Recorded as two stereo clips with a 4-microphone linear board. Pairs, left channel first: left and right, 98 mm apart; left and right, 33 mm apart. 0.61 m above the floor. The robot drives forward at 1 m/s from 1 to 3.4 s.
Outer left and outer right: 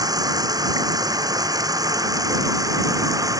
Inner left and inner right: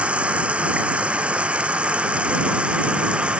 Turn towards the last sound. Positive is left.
turn(degrees=-35)  # may be behind; listen again after turning